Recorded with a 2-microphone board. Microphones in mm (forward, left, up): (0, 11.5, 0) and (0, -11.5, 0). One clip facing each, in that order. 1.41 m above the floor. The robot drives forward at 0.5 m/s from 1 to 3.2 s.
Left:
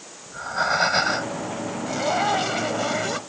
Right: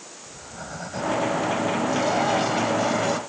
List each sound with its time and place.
0.3 s breathing: 85° left
1.9 s a zipper: 10° left (ahead or behind); by 3.2 s 15° left (ahead or behind)